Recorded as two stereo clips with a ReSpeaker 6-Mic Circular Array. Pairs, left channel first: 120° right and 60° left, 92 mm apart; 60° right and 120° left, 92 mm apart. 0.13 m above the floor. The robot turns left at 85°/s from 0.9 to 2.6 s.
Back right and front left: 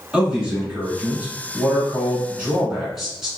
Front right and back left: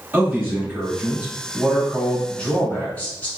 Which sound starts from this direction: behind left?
A man speaking, at 0.1 s.